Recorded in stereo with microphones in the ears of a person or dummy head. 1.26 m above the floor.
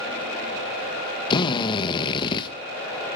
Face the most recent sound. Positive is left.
turn(degrees=25)  # may be behind; listen again after turning